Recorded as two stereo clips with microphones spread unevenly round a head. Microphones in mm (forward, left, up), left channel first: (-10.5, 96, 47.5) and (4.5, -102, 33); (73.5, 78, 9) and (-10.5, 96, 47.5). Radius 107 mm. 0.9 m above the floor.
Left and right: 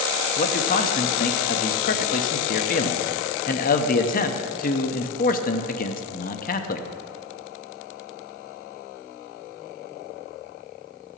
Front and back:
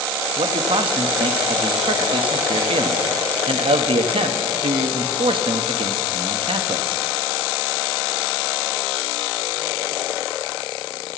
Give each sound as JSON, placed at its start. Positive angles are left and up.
{"t": 0.4, "sound": "a man speaking", "azimuth_deg": 145, "distance_m": 0.9}